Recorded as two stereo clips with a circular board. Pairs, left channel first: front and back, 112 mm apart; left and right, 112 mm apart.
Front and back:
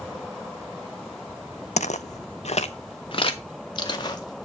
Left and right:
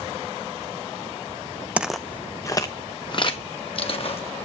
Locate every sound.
1.8 s footsteps: 10° right, 0.6 m; by 4.5 s 55° left, 2 m